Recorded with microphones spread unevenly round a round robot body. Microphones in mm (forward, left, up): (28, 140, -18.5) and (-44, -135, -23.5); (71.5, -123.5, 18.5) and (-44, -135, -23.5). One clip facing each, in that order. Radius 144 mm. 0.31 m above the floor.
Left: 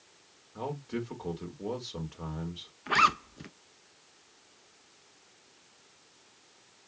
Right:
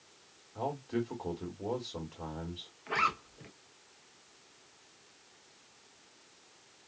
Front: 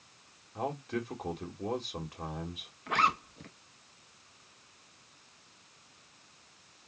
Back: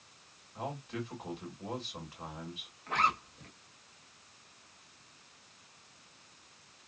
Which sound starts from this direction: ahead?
A man speaking, at 0.6 s.